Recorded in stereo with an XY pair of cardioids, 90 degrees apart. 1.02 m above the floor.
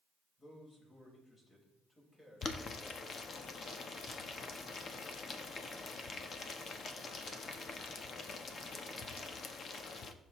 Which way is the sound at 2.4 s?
55° left.